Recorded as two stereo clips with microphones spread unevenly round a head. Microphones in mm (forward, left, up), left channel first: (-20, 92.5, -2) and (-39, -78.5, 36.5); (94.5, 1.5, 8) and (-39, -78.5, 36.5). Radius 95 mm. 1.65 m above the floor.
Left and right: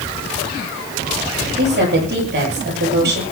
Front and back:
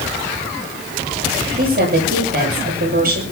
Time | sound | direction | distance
1.6 | a woman speaking | 125° right | 9 m